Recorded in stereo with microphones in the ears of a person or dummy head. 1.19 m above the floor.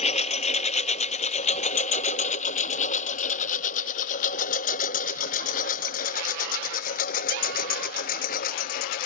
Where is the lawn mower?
45° left (ahead or behind); by 9.1 s 55° left (ahead or behind).